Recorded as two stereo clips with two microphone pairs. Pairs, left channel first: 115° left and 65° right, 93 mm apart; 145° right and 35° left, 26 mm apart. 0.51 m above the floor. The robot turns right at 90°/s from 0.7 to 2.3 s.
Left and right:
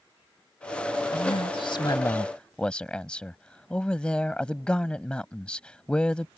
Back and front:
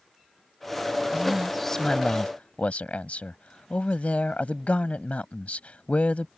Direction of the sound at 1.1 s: 90° left.